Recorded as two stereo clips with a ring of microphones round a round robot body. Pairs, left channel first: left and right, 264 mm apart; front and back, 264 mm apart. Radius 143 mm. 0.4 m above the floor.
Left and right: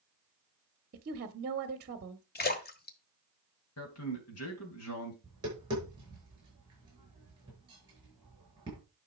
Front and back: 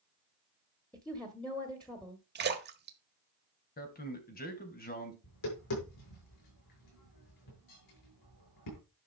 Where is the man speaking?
55° left, 3 m.